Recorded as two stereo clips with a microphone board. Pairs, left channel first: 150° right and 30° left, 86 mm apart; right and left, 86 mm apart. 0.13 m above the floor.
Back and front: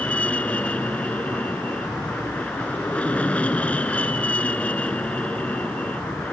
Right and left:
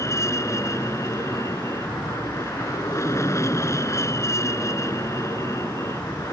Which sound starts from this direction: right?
An aircraft, at 0.0 s.